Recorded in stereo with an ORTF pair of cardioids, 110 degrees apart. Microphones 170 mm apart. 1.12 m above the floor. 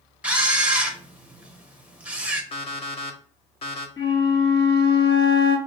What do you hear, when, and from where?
0.2 s a camera shutter: 10° right, 1.2 m
2.5 s an alarm clock: 35° left, 1.3 m
4.0 s a flute: 30° left, 2 m